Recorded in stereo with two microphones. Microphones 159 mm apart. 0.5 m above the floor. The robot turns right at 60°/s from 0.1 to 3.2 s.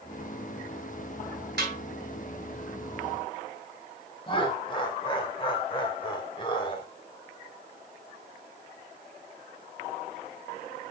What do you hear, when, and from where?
1.6 s a snare drum: 75° right (ahead or behind), 3 m; by 1.8 s 70° right (ahead or behind), 3 m
4.3 s laughter: 30° left (ahead or behind), 2 m